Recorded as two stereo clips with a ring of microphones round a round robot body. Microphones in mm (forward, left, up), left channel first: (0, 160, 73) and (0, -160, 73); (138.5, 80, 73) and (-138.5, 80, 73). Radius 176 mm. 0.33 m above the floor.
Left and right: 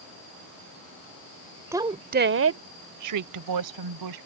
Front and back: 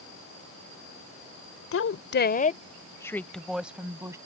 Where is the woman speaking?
10° right; by 4.2 s 100° right.